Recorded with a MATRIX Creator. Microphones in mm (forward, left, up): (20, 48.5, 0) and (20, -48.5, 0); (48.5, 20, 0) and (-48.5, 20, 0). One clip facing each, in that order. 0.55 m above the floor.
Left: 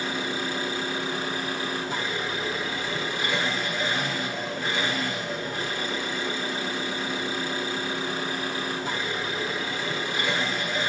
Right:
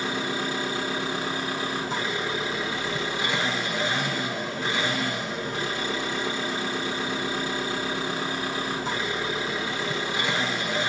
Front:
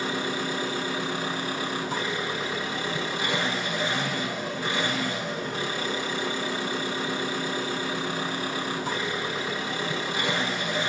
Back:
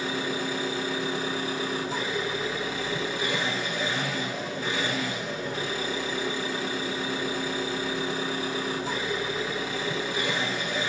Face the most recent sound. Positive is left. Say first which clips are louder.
# right 1 dB, front 1 dB
turn(degrees=-25)